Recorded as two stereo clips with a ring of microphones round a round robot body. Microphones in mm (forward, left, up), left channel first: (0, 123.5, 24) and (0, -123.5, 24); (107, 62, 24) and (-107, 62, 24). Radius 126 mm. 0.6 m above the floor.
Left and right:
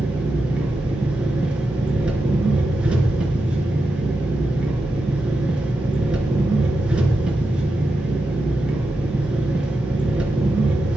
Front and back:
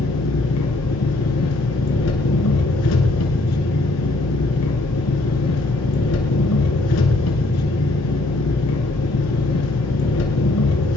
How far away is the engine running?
About 3 m.